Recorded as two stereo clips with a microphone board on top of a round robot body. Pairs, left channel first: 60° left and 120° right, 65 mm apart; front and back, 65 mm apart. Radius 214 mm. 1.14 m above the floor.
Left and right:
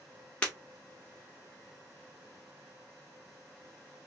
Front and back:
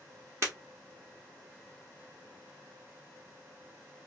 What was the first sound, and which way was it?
Breaking glass, 130° left.